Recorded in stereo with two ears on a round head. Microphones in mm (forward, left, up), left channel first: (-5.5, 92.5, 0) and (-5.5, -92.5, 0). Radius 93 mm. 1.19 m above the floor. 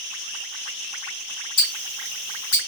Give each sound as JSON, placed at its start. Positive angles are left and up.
{"t": 1.6, "sound": "ticking", "side_deg": 40, "distance_m": 1.6}